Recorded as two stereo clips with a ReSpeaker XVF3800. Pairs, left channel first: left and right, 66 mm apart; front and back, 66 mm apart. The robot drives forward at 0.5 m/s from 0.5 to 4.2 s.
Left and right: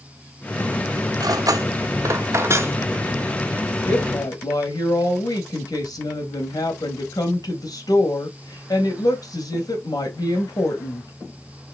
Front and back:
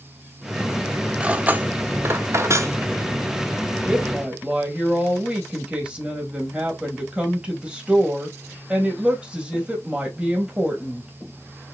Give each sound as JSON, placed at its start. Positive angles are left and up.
{"t": 1.2, "sound": "cutlery clinking", "azimuth_deg": -105, "distance_m": 0.9}
{"t": 3.9, "sound": "a woman speaking", "azimuth_deg": 105, "distance_m": 3.0}